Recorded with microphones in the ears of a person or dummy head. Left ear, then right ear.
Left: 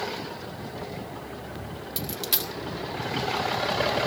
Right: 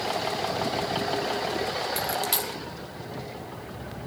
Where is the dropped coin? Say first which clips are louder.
Right 3 dB; centre (ahead or behind), 2.5 m.